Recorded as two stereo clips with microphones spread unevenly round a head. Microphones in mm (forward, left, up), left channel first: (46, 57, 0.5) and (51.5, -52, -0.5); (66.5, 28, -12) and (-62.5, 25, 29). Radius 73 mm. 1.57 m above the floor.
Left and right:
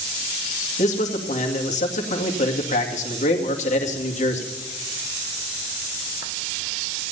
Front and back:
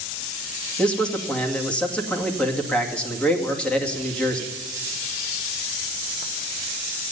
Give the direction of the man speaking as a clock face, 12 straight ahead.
9 o'clock.